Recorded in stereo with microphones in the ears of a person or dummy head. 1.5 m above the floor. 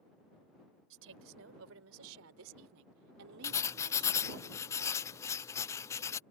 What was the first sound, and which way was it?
A woman speaking, 75° right (ahead or behind).